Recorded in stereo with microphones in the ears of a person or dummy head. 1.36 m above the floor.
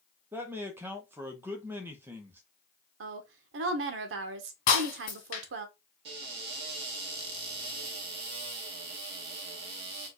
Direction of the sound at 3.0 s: 70° right (ahead or behind).